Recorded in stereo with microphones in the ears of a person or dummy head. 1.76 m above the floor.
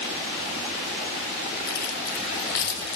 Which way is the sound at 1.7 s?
55° left (ahead or behind).